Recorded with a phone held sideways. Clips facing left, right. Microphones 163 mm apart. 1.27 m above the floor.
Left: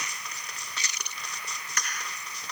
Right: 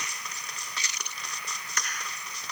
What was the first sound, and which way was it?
Only background noise.